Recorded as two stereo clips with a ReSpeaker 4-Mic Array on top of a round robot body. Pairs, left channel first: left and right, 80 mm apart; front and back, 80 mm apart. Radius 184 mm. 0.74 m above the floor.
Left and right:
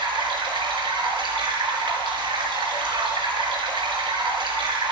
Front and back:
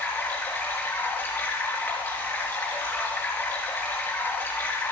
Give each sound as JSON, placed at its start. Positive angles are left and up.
{"t": 0.0, "sound": "running water", "azimuth_deg": -65, "distance_m": 4.5}